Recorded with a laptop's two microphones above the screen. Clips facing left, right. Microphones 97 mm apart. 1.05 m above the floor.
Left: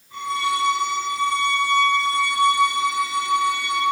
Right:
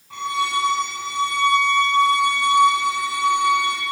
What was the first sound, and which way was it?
A violin, 75° right (ahead or behind).